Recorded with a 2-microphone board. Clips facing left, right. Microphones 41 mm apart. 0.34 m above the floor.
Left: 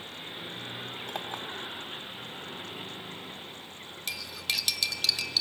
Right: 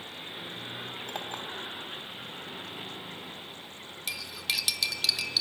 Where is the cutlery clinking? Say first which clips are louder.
Even; 5° right (ahead or behind), 0.8 m.